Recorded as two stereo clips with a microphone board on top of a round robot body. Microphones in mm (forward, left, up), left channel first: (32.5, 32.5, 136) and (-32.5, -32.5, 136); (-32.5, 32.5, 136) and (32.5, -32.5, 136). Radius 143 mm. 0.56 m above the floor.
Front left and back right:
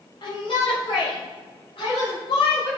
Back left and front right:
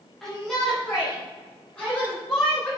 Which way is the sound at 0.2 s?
50° left.